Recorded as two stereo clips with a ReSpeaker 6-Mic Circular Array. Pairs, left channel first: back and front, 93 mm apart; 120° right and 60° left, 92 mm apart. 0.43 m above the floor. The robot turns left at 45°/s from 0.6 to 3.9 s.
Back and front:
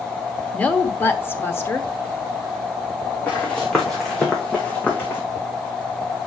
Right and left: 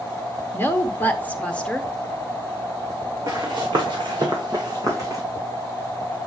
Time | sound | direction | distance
0.5 | a woman speaking | 135° right | 0.8 m
3.3 | running footsteps | 110° left | 2.5 m